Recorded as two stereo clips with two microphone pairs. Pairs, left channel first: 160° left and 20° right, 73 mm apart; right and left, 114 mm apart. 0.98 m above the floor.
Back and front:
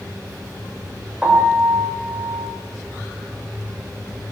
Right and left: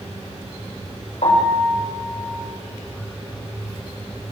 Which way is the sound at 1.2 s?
95° right.